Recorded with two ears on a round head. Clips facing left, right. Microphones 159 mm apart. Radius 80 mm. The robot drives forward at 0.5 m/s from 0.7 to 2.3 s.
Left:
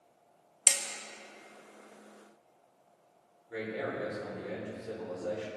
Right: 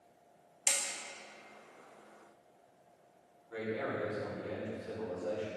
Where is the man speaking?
20° left (ahead or behind), 4 m.